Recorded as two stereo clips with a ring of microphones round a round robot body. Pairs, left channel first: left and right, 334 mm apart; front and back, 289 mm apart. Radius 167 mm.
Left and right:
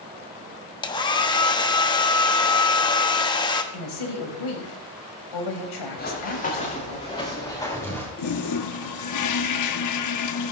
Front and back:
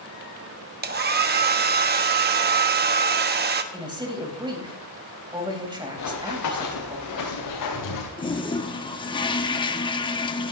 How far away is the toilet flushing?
About 1.1 m.